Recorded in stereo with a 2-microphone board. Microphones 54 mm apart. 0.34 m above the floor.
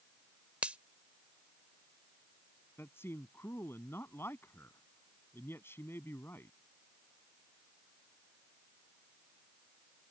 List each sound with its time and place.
0.6 s a finger snap: 25° right (ahead or behind)
2.8 s a man speaking: 50° left (ahead or behind)